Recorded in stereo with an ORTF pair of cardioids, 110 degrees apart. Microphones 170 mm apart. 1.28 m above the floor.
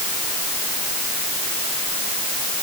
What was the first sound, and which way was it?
Only background noise.